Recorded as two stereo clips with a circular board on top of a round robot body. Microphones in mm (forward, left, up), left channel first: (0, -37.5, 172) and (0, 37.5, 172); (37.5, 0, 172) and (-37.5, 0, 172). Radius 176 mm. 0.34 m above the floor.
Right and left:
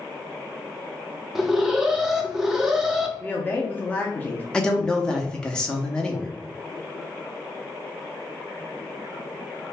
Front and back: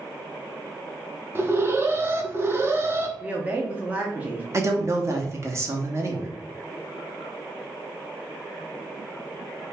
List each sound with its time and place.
1.4 s an alarm: 170° left, 0.8 m
3.2 s a woman speaking: 135° right, 0.9 m
4.5 s a man speaking: 165° right, 1.0 m